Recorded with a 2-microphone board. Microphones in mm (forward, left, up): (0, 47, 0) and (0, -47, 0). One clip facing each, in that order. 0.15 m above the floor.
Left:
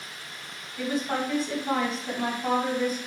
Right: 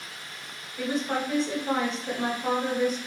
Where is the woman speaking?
20° right (ahead or behind), 1.8 m.